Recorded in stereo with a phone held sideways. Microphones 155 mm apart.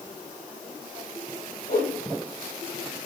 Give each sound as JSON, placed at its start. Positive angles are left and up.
{"t": 1.7, "sound": "a whoosh", "side_deg": 75, "distance_m": 6.0}